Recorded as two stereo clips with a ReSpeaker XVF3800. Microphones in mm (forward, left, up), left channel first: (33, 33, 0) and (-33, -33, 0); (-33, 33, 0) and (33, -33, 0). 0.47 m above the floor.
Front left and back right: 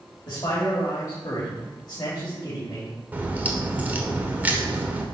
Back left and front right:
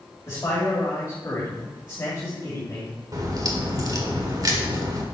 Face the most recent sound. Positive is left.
turn(degrees=-70)